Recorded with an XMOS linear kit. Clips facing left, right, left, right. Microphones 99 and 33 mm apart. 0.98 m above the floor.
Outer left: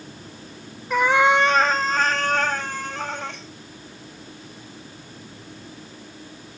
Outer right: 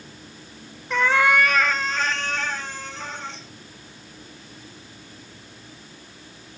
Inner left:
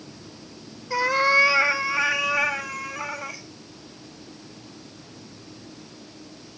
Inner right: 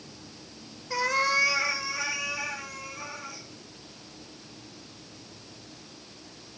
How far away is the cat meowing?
About 0.8 m.